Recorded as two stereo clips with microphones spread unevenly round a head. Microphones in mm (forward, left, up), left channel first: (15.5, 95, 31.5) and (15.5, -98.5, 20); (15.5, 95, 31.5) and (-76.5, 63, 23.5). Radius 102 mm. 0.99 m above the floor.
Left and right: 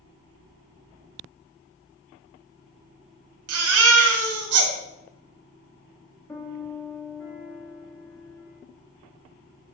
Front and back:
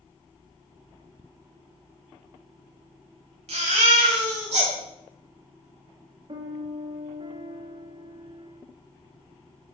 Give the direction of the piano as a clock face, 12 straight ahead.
6 o'clock.